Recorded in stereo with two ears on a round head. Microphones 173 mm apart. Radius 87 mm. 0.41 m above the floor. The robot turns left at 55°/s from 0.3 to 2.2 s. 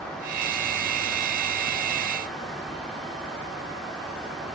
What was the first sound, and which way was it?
Only background noise.